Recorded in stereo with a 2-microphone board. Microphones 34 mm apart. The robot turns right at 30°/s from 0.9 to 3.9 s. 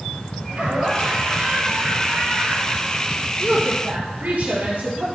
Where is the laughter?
130° right, 2.5 m; by 3.3 s 60° right, 2.5 m.